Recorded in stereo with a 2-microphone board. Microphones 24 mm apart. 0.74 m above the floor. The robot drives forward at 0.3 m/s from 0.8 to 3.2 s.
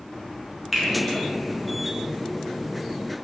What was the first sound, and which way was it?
A finger snap, 5° right (ahead or behind).